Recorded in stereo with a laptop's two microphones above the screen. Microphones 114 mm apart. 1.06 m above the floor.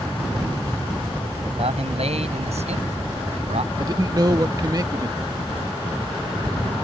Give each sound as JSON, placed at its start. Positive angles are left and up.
{"t": 1.6, "sound": "a man speaking", "side_deg": -70}
{"t": 3.8, "sound": "a man speaking", "side_deg": -35}